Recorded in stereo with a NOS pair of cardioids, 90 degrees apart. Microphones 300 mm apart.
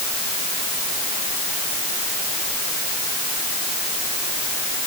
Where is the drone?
I don't hear a drone.